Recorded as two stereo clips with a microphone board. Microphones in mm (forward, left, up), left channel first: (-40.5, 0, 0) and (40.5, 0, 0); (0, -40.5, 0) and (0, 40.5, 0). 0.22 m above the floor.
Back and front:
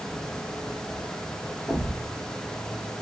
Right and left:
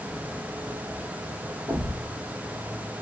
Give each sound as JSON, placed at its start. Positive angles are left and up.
{"t": 1.7, "sound": "a thud", "azimuth_deg": 75, "distance_m": 2.5}